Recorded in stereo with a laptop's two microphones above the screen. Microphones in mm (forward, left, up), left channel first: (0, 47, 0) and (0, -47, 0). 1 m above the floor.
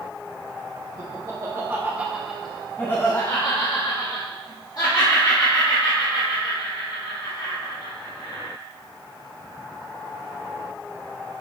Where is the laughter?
40° right (ahead or behind), 1.3 m; by 8.5 s 55° left (ahead or behind), 4.5 m.